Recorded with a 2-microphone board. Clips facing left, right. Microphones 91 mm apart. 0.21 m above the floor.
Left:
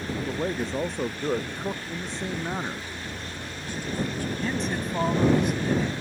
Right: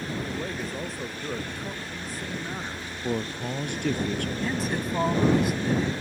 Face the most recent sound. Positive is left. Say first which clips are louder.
# left 2 dB
turn(degrees=-5)  # may be behind; listen again after turning